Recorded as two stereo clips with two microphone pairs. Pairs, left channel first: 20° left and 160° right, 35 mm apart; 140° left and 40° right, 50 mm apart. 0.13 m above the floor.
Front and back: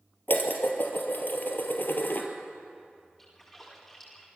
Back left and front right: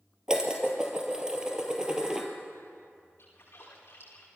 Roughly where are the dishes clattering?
Ahead left.